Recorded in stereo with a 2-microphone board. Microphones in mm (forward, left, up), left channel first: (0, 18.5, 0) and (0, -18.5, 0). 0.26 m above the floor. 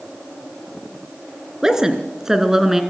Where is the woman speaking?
15° right (ahead or behind), 3 m; by 2.8 s 10° right (ahead or behind), 2.5 m.